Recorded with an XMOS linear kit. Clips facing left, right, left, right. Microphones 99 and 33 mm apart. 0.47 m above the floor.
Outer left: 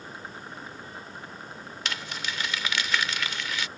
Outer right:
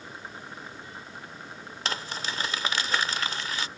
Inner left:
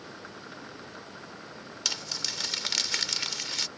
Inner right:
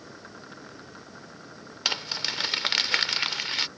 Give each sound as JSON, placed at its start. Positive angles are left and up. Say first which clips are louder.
{"t": 1.9, "sound": "crumpling", "louder": "outer right 2 dB, inner right 5 dB", "side_deg": -35}